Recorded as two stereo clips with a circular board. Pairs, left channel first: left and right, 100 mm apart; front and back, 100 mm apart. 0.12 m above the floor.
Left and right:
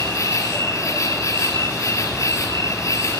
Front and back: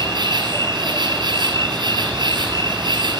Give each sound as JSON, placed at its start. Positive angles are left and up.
{"t": 0.0, "sound": "an insect", "azimuth_deg": 145, "distance_m": 1.7}